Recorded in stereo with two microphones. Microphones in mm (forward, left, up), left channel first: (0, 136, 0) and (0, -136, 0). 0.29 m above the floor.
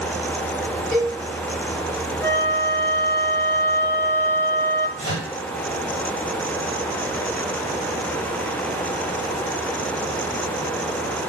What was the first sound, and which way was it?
A cowbell, 20° left (ahead or behind).